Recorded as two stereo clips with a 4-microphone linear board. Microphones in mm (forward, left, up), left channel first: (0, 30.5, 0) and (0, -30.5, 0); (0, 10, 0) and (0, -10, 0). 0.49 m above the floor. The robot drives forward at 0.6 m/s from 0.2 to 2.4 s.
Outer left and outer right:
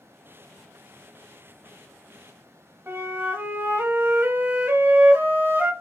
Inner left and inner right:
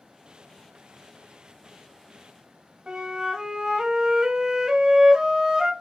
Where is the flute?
40° right (ahead or behind), 0.8 m.